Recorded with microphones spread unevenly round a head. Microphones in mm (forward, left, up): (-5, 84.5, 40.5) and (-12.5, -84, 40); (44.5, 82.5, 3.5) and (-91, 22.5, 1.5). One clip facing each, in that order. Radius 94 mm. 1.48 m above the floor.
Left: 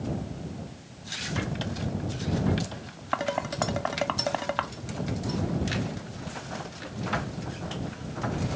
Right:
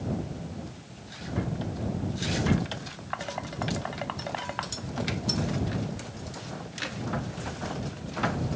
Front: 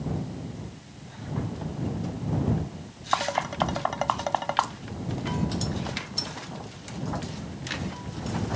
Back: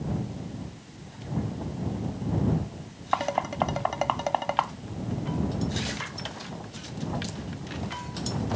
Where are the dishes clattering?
125° left.